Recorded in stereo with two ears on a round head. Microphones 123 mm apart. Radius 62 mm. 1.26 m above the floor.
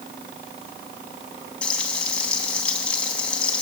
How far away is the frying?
About 5 m.